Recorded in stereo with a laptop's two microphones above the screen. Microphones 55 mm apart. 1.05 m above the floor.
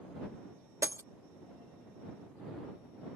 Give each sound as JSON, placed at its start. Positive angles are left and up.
{"t": 0.8, "sound": "breaking glass", "side_deg": -60}